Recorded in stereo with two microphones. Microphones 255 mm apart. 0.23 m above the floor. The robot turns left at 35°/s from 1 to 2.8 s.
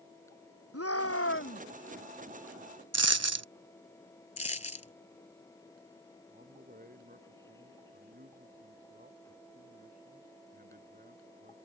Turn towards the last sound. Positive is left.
turn(degrees=-35)  # may be behind; listen again after turning